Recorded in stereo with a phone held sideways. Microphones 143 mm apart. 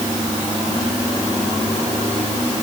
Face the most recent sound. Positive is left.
No sound to turn to.